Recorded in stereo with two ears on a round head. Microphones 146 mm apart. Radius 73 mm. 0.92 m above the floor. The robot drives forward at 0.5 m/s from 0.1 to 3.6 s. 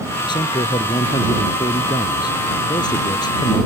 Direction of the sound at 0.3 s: 30° left (ahead or behind).